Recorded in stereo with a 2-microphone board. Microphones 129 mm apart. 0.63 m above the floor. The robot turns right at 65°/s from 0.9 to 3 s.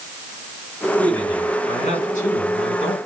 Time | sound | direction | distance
1.0 | a man speaking | 5° left | 7 m